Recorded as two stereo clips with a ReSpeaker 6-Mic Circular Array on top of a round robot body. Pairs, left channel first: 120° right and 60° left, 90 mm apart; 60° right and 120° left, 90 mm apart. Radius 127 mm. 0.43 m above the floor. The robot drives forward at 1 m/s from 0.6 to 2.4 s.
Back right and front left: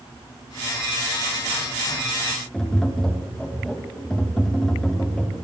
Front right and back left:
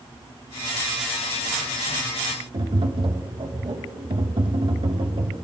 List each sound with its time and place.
2.5 s tapping: 155° left, 1.3 m